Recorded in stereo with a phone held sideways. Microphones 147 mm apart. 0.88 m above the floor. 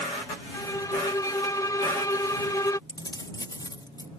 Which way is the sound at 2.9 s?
30° left (ahead or behind).